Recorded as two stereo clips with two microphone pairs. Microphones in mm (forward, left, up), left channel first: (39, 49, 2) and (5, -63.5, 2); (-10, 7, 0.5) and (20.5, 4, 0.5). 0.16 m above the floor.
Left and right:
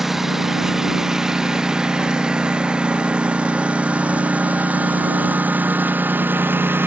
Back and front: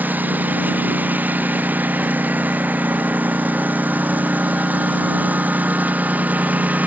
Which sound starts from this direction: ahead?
A lawn mower, at 0.0 s.